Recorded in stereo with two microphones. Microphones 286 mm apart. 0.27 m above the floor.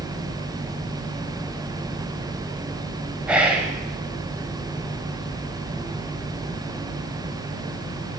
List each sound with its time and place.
3.3 s whispering: 5° right (ahead or behind), 1.1 m